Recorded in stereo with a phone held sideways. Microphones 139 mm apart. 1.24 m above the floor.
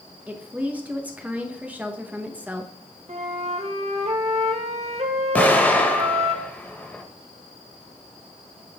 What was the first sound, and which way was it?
A woman speaking, 10° right (ahead or behind).